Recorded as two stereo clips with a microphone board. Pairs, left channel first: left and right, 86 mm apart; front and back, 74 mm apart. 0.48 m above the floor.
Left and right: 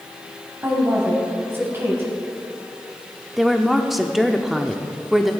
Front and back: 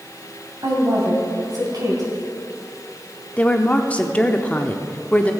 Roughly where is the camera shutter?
No camera shutter in this recording.